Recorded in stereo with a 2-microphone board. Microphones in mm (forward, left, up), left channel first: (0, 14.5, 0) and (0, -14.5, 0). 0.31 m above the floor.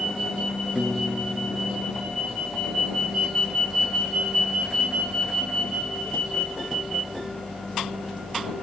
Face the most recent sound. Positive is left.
turn(degrees=-25)  # may be behind; listen again after turning